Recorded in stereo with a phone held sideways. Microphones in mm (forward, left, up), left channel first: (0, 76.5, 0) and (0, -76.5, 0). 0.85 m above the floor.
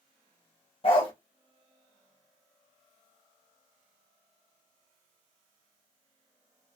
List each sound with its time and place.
0.8 s a dog barking: 40° left (ahead or behind), 1.0 m